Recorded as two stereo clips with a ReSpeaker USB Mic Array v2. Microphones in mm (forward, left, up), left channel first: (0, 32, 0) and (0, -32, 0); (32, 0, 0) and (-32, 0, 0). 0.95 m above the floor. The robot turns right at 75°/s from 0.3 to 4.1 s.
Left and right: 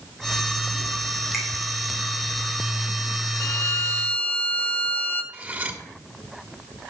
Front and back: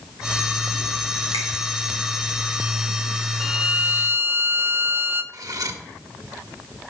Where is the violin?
90° left, 0.6 m; by 5.2 s 140° left, 0.6 m.